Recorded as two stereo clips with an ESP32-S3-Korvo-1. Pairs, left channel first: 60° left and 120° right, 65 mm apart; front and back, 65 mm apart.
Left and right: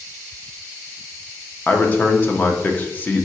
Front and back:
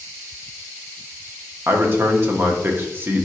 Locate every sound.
1.7 s a man speaking: 125° left, 0.8 m